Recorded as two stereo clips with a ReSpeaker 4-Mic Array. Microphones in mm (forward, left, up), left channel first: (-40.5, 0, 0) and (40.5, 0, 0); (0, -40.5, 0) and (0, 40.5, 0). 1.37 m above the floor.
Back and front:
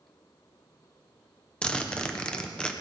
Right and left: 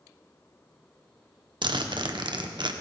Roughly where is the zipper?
Left.